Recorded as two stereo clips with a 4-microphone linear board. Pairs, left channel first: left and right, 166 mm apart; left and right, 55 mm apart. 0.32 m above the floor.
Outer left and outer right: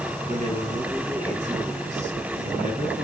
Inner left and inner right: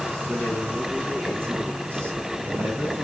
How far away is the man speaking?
About 4 m.